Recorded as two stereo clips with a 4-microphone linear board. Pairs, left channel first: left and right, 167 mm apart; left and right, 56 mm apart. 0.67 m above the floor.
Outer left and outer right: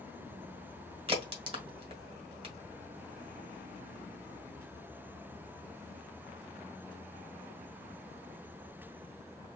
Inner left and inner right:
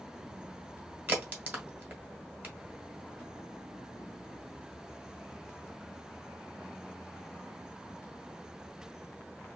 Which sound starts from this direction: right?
A crack, at 1.1 s.